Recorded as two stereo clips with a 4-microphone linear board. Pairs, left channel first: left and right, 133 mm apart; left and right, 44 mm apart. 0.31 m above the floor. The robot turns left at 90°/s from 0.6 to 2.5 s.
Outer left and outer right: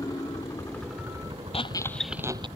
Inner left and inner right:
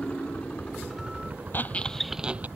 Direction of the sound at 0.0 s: 25° left.